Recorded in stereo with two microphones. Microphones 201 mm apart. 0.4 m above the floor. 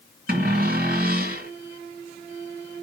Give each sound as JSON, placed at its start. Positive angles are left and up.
{"t": 0.3, "sound": "a cupboard door", "side_deg": -50, "distance_m": 2.5}